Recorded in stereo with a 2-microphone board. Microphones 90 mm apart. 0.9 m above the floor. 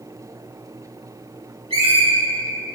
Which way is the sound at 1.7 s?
75° right (ahead or behind).